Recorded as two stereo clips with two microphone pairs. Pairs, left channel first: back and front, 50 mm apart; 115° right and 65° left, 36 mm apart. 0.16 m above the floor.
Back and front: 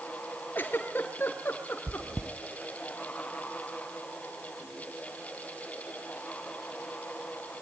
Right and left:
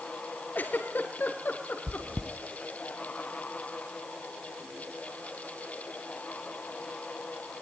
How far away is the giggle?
About 3 m.